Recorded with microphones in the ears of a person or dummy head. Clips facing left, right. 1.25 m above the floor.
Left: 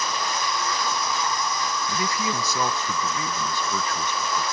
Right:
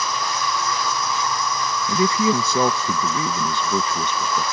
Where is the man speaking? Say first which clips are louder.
Right 12 dB; 30° right (ahead or behind).